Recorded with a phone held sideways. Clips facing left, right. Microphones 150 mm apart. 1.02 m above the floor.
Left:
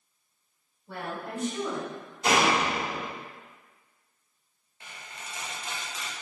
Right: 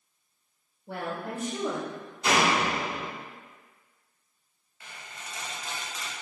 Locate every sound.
0.9 s a woman speaking: 65° right (ahead or behind), 1.9 m; by 1.9 s 50° right (ahead or behind), 1.2 m
2.2 s a door slam: 45° left (ahead or behind), 1.5 m
4.8 s a squeak: 25° left (ahead or behind), 1.3 m